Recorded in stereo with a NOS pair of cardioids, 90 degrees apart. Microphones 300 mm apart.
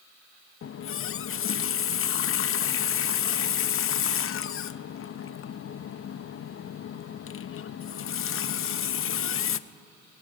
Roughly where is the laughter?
No laughter in this recording.